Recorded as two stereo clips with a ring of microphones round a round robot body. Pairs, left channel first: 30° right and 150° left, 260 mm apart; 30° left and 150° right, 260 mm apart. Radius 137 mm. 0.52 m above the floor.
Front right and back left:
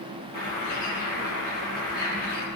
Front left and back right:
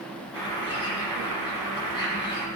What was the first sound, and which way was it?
A bird, 40° right.